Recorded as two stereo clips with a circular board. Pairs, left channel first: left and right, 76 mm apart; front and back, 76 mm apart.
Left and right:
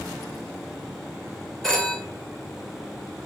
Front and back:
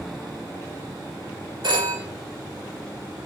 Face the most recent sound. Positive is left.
turn(degrees=175)